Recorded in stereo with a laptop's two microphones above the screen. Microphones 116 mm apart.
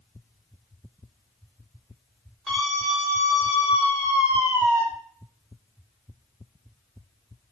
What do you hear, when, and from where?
2.5 s a scream: 5° left (ahead or behind), 3.5 m; by 4.8 s 30° left (ahead or behind), 3.5 m